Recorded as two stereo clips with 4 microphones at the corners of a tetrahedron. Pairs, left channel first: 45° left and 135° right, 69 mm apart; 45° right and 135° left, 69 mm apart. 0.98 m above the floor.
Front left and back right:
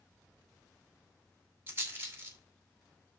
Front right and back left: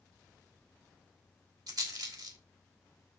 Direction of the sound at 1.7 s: 165° left.